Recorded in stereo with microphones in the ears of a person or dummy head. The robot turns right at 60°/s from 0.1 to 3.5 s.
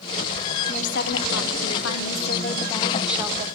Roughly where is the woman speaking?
Ahead left.